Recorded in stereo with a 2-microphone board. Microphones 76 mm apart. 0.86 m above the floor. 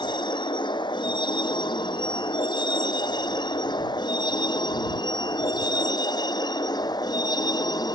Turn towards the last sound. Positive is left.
turn(degrees=60)  # may be behind; listen again after turning